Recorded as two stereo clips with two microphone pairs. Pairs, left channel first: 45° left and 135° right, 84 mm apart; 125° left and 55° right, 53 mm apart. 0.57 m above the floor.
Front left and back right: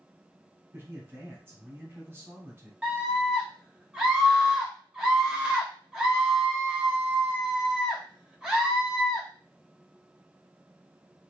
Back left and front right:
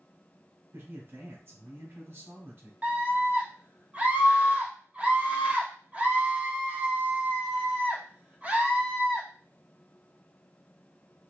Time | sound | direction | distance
0.7 | a man speaking | 85° right | 1.1 m
2.8 | a scream | 75° right | 0.9 m